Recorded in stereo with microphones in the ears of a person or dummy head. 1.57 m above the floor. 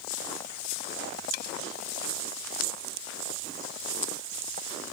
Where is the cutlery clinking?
50° left (ahead or behind).